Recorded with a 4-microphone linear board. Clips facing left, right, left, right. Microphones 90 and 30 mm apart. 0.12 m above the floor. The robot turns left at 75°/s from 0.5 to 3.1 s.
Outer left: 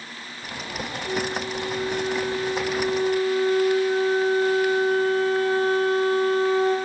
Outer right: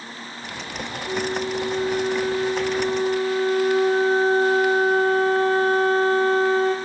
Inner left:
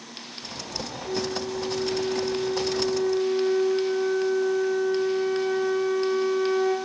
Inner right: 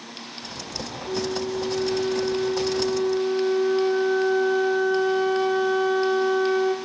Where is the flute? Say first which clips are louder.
Outer right 3 dB, inner right 2 dB; 15° left, 1.7 m; by 6.8 s 140° right, 1.7 m.